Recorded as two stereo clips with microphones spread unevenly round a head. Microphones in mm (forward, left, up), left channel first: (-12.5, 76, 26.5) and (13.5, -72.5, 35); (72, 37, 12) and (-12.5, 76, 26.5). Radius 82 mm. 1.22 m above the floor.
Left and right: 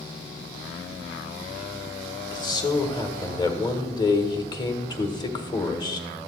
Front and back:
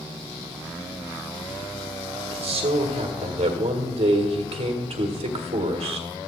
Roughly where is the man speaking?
Behind.